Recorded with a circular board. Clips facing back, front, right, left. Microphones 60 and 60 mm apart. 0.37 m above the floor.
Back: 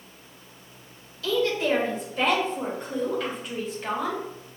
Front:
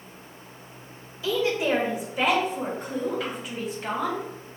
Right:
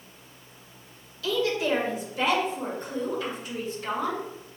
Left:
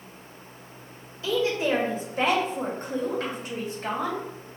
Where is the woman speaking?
55° left, 1.3 m; by 4.2 s 90° left, 3 m.